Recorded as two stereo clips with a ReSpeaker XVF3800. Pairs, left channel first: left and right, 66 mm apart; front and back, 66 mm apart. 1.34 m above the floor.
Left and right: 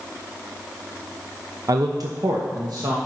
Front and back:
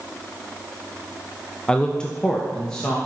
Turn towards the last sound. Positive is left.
turn(degrees=-80)